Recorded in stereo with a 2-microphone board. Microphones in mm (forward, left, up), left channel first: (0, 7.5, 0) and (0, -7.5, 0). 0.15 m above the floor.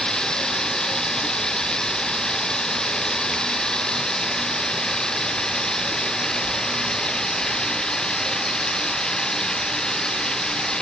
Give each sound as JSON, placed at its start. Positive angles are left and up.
{"t": 0.0, "sound": "running water", "side_deg": 65}